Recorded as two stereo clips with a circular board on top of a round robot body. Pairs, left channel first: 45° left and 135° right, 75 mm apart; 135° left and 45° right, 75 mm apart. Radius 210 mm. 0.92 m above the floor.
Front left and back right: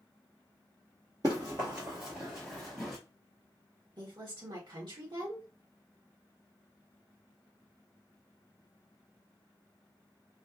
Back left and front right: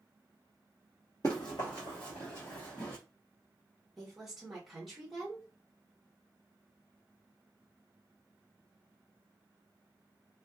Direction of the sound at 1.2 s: 175° right.